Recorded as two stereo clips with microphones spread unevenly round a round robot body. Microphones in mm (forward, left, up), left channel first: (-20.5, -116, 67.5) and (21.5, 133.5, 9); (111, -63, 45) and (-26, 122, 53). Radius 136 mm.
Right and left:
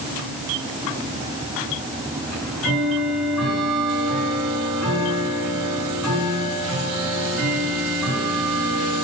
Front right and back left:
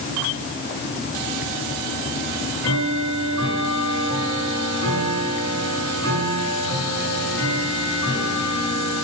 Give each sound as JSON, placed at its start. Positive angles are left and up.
{"t": 2.3, "sound": "ticking", "azimuth_deg": 170, "distance_m": 6.0}